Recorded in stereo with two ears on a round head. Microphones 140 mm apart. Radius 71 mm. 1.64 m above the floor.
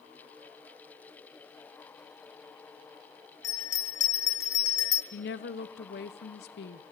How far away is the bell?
About 1.3 m.